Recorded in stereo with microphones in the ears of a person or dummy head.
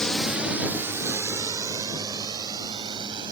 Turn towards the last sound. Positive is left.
turn(degrees=-25)  # may be behind; listen again after turning